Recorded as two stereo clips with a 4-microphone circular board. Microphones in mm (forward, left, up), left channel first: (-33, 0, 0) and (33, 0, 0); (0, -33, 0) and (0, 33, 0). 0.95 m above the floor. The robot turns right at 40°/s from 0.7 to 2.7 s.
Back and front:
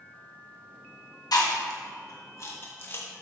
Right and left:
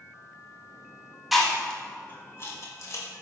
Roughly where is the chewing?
Behind.